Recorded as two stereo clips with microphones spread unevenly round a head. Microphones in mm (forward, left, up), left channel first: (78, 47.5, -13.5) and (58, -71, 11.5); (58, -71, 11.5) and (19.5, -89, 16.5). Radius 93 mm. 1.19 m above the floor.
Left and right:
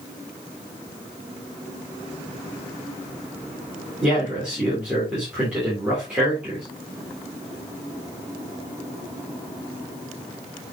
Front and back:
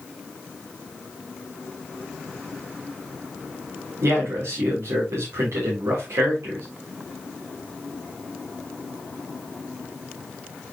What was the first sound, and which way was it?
A man speaking, 175° left.